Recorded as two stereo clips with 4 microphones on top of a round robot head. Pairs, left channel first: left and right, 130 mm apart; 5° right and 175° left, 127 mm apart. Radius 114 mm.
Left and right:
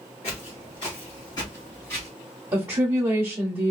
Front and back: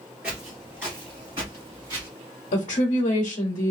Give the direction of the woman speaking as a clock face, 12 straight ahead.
1 o'clock.